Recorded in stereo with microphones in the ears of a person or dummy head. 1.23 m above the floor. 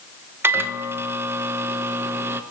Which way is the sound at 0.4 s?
15° right (ahead or behind).